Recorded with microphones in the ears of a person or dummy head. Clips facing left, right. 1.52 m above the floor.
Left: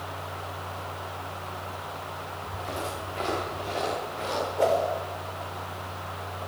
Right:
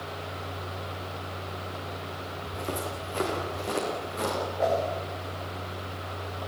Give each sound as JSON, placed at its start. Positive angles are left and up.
{"t": 2.4, "sound": "footsteps", "side_deg": -40, "distance_m": 8.0}
{"t": 4.6, "sound": "a whoosh", "side_deg": 40, "distance_m": 5.5}